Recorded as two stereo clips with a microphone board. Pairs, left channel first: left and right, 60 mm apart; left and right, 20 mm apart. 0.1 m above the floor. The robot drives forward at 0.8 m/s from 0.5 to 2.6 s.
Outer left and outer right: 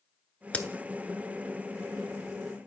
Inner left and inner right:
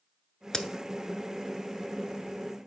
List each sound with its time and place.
0.5 s a crack: 25° left (ahead or behind), 0.6 m